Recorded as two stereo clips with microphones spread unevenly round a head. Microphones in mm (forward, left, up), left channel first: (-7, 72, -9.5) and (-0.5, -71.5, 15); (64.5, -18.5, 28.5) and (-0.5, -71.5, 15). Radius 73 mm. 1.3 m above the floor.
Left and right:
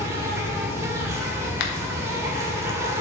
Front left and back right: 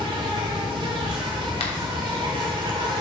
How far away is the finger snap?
About 1.0 m.